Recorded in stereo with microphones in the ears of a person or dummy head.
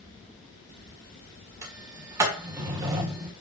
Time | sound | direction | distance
1.6 | a sliding door | 15° right (ahead or behind) | 1.7 m